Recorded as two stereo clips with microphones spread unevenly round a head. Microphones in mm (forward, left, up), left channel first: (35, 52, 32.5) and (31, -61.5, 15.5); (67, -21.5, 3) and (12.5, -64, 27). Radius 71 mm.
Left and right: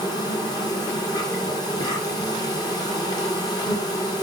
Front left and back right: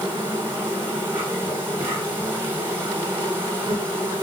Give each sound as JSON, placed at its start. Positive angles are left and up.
{"t": 0.0, "sound": "an insect", "azimuth_deg": 145, "distance_m": 2.0}